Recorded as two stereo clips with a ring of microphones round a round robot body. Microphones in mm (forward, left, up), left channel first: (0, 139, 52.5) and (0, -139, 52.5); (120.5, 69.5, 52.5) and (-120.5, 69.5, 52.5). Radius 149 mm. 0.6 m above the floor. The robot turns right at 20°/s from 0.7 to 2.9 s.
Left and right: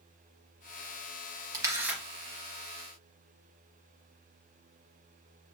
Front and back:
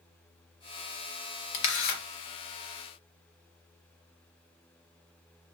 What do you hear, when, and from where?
1.5 s a camera shutter: 10° right, 0.8 m; by 2.0 s 5° right, 0.8 m